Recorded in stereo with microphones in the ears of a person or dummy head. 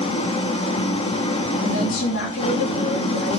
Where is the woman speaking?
70° left (ahead or behind), 3 m.